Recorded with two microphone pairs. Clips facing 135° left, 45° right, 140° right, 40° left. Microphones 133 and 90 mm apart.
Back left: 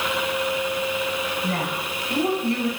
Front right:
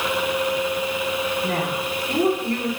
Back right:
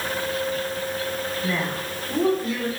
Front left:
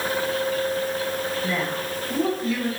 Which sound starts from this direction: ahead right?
A woman speaking, at 1.4 s.